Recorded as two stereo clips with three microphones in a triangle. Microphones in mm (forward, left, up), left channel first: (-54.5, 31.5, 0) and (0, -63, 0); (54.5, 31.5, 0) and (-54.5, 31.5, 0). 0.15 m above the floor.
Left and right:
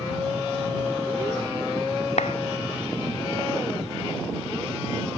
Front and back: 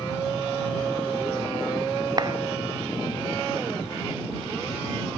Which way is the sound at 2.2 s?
130° left.